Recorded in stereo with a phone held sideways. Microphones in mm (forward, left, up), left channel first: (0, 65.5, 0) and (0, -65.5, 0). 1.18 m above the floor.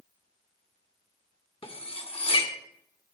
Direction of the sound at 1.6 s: 50° left (ahead or behind).